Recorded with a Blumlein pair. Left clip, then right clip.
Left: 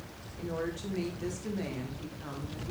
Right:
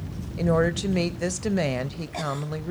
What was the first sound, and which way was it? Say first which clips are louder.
A woman speaking: right 13 dB; 35° right.